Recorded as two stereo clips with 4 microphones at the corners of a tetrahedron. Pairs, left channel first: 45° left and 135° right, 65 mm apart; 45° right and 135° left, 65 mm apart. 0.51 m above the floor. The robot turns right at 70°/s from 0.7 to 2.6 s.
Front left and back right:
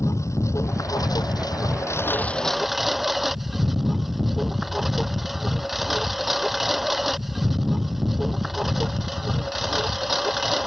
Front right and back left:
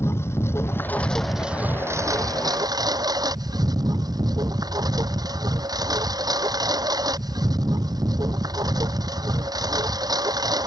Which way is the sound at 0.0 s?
5° left.